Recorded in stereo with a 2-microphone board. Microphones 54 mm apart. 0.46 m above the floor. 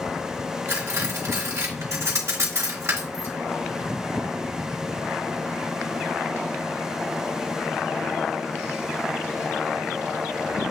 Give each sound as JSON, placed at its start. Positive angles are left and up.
{"t": 0.7, "sound": "cutlery clinking", "side_deg": -70, "distance_m": 2.5}